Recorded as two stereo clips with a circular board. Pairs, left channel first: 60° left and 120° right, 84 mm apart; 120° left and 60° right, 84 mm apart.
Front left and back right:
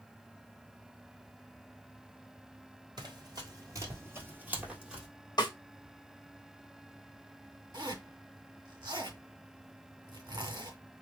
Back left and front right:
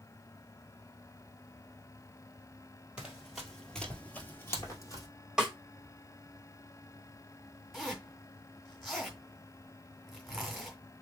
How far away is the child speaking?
No child speaking in this recording.